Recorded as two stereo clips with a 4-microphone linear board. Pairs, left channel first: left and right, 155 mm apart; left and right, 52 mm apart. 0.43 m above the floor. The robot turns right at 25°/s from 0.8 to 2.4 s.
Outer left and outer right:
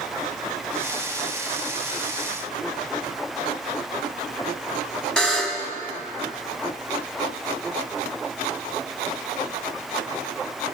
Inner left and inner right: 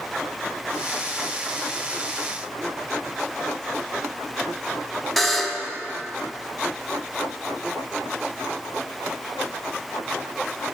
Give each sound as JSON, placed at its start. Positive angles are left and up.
{"t": 5.2, "sound": "a buzzer", "side_deg": 5, "distance_m": 1.1}